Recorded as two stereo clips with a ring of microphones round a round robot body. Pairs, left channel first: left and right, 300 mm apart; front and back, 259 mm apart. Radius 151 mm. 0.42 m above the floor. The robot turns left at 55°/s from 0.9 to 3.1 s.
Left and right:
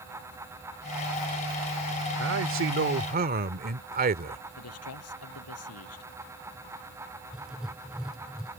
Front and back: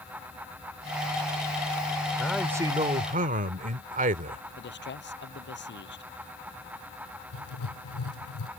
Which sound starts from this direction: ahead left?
A man speaking, at 4.6 s.